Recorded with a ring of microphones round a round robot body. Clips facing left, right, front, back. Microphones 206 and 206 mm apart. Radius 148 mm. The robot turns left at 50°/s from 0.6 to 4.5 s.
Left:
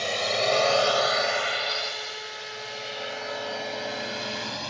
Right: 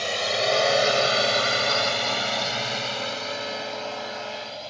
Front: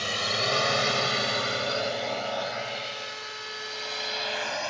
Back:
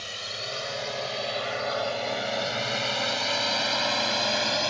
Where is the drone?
Straight ahead; by 4.7 s 135° left.